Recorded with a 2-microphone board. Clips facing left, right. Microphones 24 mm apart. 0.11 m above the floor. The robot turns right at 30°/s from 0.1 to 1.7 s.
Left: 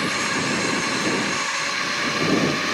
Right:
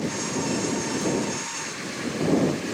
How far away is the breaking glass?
I don't hear breaking glass.